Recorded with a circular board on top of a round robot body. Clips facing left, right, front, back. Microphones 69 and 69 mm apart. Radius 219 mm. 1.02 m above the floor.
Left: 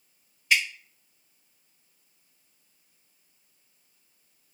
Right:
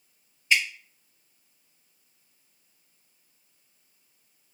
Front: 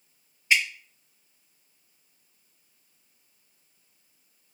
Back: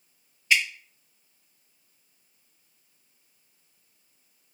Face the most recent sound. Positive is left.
turn(degrees=65)